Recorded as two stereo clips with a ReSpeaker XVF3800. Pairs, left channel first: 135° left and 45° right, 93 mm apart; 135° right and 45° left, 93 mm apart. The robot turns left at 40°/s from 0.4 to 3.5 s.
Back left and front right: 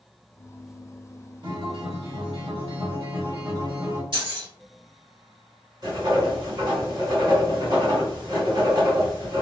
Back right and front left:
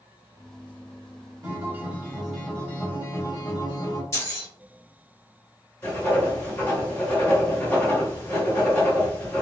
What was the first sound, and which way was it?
A guitar, 10° right.